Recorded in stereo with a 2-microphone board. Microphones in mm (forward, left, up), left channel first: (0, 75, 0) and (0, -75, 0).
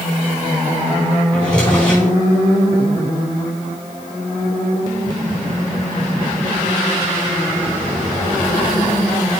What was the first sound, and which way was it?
A drawer, 10° left (ahead or behind).